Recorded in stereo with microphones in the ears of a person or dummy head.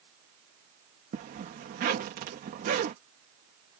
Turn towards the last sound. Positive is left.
turn(degrees=-40)  # may be behind; listen again after turning